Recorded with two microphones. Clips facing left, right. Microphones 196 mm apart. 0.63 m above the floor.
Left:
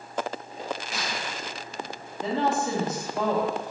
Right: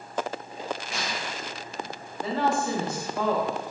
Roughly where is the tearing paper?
Centre.